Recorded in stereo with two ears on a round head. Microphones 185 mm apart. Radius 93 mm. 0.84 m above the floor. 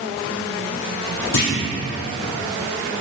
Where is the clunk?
70° left (ahead or behind), 2.5 m.